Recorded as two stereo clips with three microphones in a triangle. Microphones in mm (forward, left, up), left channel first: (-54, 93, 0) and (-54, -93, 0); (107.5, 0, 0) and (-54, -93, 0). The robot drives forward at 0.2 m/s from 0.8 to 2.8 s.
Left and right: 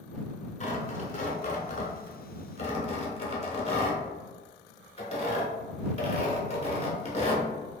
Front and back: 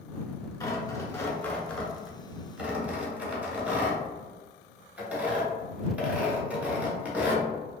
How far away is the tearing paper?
About 0.7 m.